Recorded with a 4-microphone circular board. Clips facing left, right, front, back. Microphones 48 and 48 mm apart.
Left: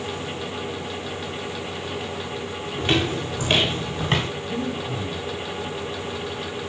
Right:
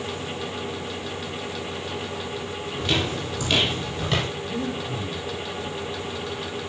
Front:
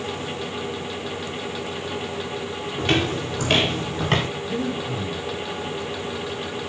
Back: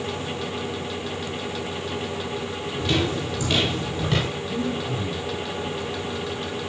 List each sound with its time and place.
2.8 s footsteps: 35° left, 6 m
4.5 s breathing: 35° left, 6.5 m